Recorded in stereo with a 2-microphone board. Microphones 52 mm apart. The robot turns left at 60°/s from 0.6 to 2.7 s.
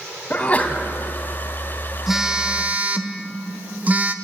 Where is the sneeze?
30° left (ahead or behind), 2.5 m; by 0.8 s 40° left (ahead or behind), 2.5 m.